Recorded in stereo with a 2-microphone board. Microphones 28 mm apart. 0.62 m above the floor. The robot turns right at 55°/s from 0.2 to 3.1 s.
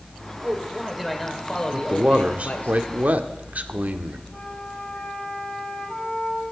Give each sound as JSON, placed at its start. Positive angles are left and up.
{"t": 0.4, "sound": "a man speaking", "azimuth_deg": -35, "distance_m": 2.0}
{"t": 1.7, "sound": "a man speaking", "azimuth_deg": -155, "distance_m": 1.1}
{"t": 4.3, "sound": "a flute", "side_deg": 30, "distance_m": 3.5}